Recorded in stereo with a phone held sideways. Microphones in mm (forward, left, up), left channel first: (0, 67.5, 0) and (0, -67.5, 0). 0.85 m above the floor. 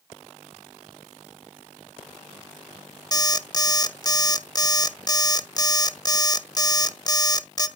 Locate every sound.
3.1 s an alarm clock: 30° left (ahead or behind), 0.8 m